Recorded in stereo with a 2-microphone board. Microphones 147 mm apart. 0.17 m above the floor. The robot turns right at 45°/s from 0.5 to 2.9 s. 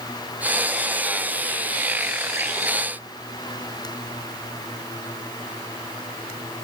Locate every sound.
Only background noise.